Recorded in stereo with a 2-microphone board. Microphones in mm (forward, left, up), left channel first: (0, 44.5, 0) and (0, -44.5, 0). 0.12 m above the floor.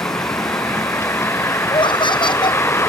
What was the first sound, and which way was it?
A vehicle, 30° left (ahead or behind).